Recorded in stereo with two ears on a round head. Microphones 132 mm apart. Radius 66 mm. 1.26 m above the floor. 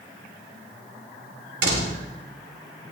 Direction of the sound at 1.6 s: 80° right.